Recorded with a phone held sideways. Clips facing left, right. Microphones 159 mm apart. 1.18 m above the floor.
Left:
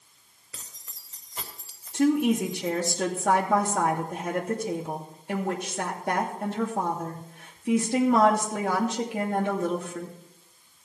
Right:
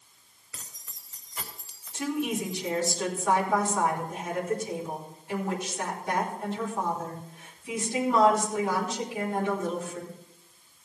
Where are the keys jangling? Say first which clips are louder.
Even; 25° left (ahead or behind), 2.5 m; by 2.9 s 45° left (ahead or behind), 3.5 m.